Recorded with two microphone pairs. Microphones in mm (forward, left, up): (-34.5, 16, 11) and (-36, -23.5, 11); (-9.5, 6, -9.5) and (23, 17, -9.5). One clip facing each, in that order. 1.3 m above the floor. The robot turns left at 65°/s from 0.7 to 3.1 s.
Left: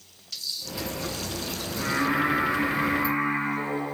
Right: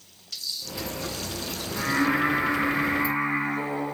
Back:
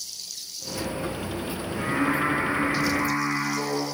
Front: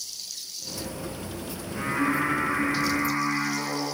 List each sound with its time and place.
1.7 s singing: 80° right, 5 m; by 3.9 s 175° right, 5 m